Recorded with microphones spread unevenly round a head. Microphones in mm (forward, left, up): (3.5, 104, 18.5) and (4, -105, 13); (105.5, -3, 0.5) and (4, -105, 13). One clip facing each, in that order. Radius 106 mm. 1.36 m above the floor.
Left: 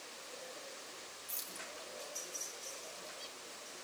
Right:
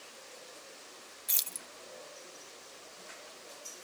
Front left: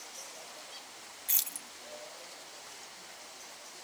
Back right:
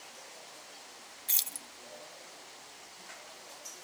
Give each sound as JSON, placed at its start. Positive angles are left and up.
{"t": 1.3, "sound": "keys jangling", "azimuth_deg": -80, "distance_m": 1.0}